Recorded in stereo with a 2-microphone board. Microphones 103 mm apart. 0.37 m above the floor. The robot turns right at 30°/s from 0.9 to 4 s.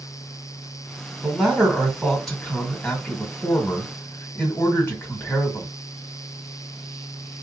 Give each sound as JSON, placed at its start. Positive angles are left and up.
{"t": 1.2, "sound": "a man speaking", "side_deg": -10, "distance_m": 1.5}